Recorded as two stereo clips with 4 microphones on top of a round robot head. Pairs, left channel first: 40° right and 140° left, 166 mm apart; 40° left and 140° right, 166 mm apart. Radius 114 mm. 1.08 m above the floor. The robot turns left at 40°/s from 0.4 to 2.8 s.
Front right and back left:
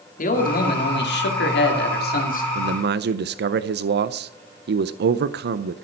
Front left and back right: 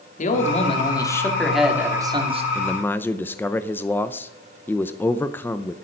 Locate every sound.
0.2 s a man speaking: 5° right, 2.5 m; by 2.5 s 85° right, 2.5 m
2.5 s a man speaking: 130° left, 0.6 m; by 5.9 s 120° left, 0.6 m